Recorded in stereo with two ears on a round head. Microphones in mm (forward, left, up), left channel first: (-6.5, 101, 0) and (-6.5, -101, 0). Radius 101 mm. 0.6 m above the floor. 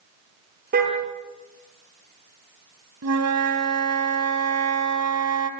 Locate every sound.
0.7 s a car horn: 45° right (ahead or behind), 7 m
3.0 s a flute: 80° right, 2.5 m